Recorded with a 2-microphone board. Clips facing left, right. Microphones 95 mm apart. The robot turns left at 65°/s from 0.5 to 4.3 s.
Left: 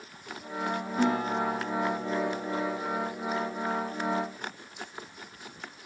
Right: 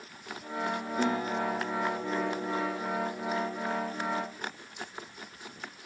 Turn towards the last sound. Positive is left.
turn(degrees=-135)